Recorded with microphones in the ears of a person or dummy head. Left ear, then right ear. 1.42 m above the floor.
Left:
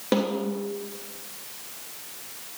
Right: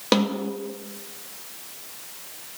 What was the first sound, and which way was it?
A snare drum, 30° right (ahead or behind).